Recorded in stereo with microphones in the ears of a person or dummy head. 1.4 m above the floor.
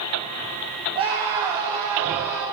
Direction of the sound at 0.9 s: 35° right (ahead or behind).